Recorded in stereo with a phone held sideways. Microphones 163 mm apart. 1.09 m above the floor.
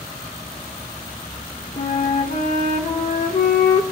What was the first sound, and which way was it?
A flute, 50° left (ahead or behind).